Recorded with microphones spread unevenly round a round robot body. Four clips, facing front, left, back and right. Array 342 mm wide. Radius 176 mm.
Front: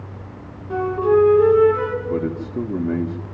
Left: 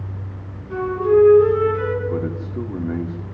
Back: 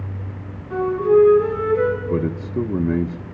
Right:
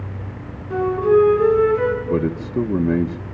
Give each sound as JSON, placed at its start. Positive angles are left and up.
{"t": 0.7, "sound": "a flute", "azimuth_deg": -10, "distance_m": 7.0}
{"t": 2.0, "sound": "a man speaking", "azimuth_deg": -90, "distance_m": 1.4}